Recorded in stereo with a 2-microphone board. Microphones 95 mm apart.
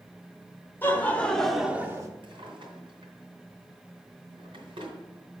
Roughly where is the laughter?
Left.